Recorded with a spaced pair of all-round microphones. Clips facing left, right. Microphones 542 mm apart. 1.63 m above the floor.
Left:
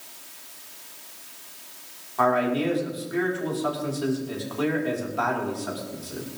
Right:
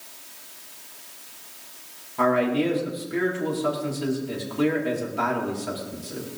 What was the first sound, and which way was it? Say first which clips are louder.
A man speaking: right 2 dB; 45° right (ahead or behind).